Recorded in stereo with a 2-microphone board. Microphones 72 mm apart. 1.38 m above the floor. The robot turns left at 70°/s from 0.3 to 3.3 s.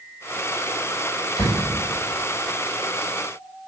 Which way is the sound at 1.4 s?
80° left.